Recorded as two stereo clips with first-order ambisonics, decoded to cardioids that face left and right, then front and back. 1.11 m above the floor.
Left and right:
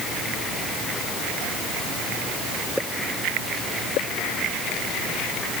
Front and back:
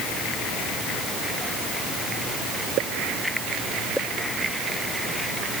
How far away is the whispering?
I don't hear whispering.